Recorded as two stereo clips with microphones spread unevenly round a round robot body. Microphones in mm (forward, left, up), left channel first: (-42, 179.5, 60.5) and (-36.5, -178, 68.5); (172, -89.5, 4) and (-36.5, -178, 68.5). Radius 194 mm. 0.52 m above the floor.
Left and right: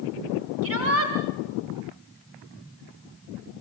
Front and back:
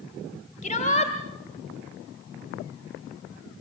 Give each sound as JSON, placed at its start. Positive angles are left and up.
{"t": 0.6, "sound": "a shout", "azimuth_deg": -35, "distance_m": 2.5}